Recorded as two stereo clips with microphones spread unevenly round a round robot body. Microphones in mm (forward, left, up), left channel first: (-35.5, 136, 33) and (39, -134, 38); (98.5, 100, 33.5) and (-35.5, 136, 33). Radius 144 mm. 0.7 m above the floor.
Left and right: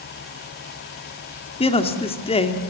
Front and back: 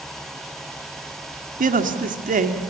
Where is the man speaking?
175° left, 2 m.